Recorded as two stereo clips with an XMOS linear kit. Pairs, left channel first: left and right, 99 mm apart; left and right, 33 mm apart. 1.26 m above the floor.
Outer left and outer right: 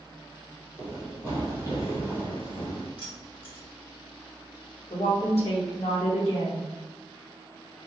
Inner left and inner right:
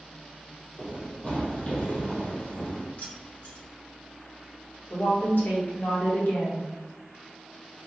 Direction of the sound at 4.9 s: 70° left (ahead or behind).